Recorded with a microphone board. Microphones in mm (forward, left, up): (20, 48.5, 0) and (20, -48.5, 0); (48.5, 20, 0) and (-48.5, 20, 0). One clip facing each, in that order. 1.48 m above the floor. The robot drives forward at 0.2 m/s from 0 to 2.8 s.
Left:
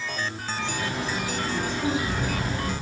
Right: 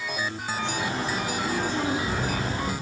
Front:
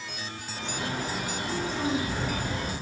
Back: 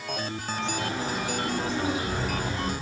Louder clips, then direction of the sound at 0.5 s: Right 1 dB, back 2 dB; 125° right.